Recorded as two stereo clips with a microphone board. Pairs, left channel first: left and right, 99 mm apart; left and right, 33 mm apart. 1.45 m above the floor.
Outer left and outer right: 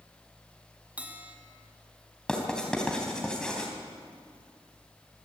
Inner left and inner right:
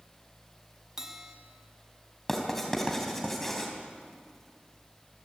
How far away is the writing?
About 3.5 m.